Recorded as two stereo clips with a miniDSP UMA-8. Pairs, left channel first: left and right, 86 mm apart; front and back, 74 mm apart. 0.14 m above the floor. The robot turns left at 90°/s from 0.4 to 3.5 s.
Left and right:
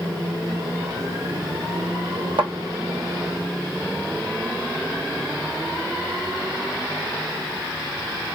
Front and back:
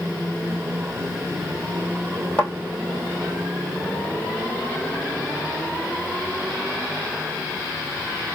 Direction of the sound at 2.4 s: 65° right.